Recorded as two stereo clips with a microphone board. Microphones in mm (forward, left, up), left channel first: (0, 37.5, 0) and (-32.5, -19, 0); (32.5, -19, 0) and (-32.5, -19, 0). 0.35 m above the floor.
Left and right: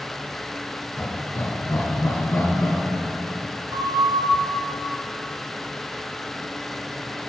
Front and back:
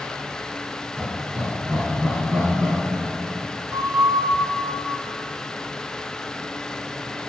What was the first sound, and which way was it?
Laughter, 110° left.